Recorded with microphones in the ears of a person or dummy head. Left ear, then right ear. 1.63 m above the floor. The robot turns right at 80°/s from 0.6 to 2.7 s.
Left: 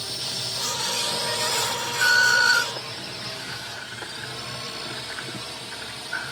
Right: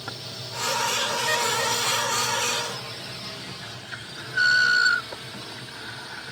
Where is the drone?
20° left (ahead or behind).